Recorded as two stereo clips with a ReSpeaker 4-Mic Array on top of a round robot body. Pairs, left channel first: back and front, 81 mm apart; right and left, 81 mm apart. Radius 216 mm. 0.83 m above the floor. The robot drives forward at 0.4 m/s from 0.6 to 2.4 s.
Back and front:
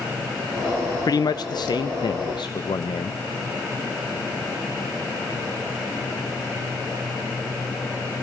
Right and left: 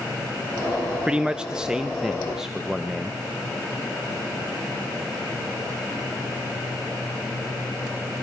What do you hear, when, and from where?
1.1 s a man speaking: 165° left, 0.6 m; by 3.2 s 175° left, 1.0 m